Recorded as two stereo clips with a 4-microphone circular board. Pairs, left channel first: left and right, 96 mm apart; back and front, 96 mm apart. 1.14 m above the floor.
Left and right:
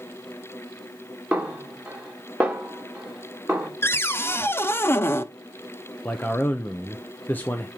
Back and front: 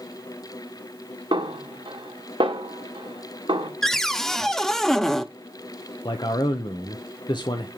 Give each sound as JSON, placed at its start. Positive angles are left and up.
{"t": 1.3, "sound": "a snare drum", "azimuth_deg": -15, "distance_m": 1.5}
{"t": 3.8, "sound": "a cupboard door", "azimuth_deg": 100, "distance_m": 0.6}
{"t": 6.0, "sound": "a man speaking", "azimuth_deg": 155, "distance_m": 0.8}